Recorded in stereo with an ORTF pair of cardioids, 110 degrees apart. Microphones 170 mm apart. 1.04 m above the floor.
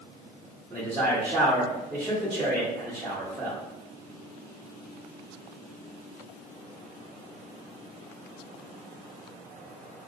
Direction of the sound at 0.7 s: 5° right.